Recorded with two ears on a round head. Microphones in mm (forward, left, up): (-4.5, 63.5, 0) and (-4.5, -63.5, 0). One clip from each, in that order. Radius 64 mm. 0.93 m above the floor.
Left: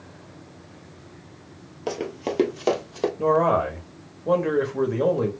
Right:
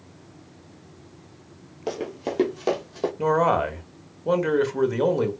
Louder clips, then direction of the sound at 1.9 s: Left 1 dB; 10° left (ahead or behind).